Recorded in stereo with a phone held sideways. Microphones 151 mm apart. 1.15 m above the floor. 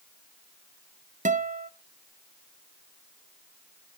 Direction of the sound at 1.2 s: 55° right (ahead or behind).